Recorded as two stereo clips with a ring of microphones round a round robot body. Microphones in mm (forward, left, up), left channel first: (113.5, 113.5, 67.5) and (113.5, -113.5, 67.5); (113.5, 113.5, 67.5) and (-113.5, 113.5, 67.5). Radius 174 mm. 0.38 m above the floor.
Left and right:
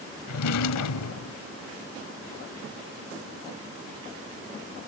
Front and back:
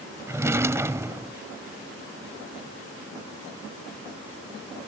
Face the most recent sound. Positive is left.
turn(degrees=100)